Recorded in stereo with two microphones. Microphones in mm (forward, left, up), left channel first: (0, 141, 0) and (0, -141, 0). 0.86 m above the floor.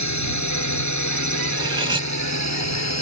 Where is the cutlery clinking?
15° right (ahead or behind).